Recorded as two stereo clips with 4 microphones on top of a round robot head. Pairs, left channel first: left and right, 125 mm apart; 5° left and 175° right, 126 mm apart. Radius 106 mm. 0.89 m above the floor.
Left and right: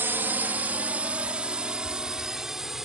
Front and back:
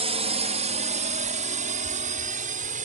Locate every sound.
0.0 s a drone: 160° right; by 2.9 s 175° right